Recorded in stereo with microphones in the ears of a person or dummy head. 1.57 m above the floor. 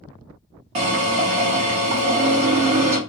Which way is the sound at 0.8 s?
35° right (ahead or behind).